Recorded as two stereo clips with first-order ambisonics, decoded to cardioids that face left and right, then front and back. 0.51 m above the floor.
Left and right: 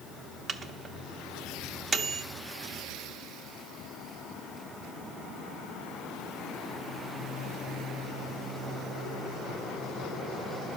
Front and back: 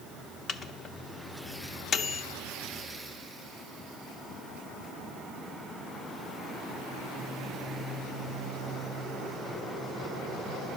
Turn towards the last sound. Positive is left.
turn(degrees=-40)